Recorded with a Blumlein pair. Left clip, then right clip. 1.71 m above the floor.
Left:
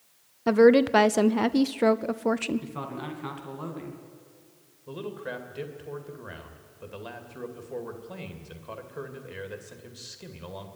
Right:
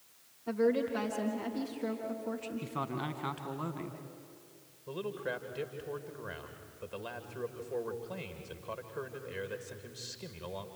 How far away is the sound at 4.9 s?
About 2 m.